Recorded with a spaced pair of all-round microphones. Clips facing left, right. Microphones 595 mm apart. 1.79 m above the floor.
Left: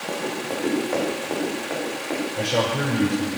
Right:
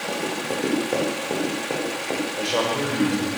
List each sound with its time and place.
0.1 s running footsteps: 50° right (ahead or behind), 8 m; by 2.3 s 60° right (ahead or behind), 8 m
2.4 s a man speaking: 40° left (ahead or behind), 5.5 m